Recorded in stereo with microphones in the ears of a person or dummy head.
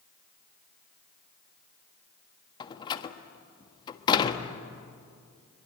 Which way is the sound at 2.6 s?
25° left (ahead or behind).